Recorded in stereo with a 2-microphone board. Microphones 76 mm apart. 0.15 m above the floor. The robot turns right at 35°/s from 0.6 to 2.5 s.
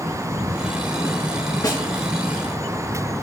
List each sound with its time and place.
1.6 s a snare drum: 55° left (ahead or behind), 2 m; by 1.8 s 50° left (ahead or behind), 2 m